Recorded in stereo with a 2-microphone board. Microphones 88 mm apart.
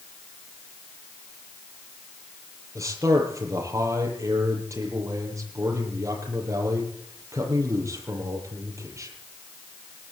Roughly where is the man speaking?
Right.